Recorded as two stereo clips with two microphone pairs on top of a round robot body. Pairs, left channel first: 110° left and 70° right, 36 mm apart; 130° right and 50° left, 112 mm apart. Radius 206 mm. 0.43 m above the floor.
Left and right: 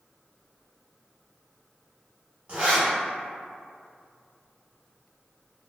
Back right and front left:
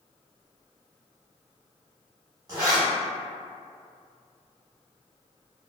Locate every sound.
2.5 s a zipper: 10° right, 0.6 m